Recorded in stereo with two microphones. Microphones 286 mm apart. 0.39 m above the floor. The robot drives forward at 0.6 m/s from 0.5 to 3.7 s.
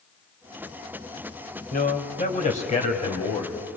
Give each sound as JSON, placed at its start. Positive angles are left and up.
{"t": 1.7, "sound": "a man speaking", "side_deg": 30, "distance_m": 1.8}